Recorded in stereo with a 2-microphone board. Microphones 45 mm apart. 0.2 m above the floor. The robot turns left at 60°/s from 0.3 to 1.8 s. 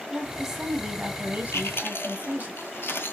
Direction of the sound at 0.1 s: 5° right.